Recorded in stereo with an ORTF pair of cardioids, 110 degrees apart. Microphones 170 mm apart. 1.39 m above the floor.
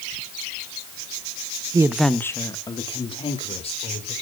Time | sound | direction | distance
1.7 | a woman speaking | 20° right | 0.9 m